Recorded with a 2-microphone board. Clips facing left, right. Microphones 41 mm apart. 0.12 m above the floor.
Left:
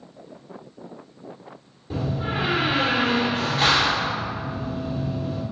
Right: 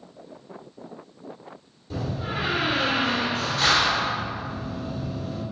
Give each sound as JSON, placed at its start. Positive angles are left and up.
{"t": 1.9, "sound": "a door slam", "side_deg": 25, "distance_m": 1.7}